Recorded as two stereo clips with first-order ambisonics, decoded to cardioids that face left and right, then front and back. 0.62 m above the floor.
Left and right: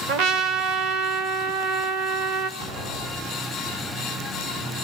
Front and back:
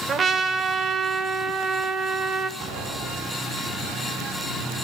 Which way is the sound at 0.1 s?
115° right.